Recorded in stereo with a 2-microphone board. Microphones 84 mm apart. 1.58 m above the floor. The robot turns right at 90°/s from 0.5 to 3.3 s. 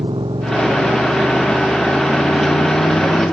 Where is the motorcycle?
105° right; by 3.3 s 145° left.